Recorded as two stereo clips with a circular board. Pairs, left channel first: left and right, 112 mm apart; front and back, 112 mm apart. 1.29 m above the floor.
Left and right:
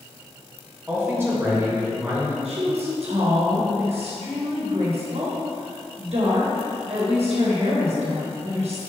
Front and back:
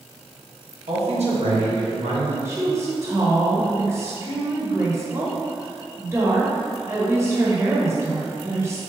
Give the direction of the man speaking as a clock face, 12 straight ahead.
5 o'clock.